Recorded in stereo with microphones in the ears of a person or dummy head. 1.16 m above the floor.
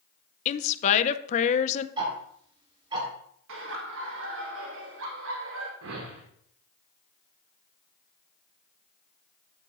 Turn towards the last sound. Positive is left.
turn(degrees=-75)  # may be behind; listen again after turning